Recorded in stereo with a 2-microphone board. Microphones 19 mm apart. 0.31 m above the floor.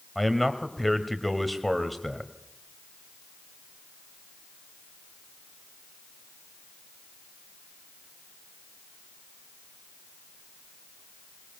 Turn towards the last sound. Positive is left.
turn(degrees=10)  # may be behind; listen again after turning